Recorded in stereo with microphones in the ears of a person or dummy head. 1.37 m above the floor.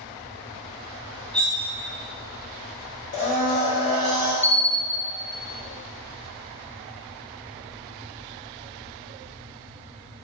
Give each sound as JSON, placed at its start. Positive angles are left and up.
{"t": 1.3, "sound": "cutlery clinking", "side_deg": 5, "distance_m": 0.6}
{"t": 3.1, "sound": "a blender", "side_deg": 40, "distance_m": 1.0}
{"t": 4.4, "sound": "a bell", "side_deg": 10, "distance_m": 0.7}